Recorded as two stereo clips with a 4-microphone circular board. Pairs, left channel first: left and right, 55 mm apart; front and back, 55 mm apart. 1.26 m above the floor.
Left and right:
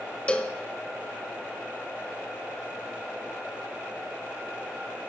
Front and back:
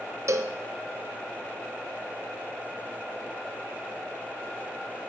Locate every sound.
0.3 s a cowbell: 160° left, 0.6 m